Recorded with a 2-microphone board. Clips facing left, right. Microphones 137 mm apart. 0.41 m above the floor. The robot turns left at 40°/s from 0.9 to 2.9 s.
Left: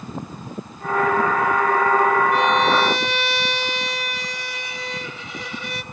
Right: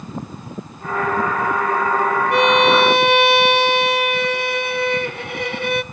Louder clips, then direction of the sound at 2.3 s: Right 4 dB; 75° right (ahead or behind).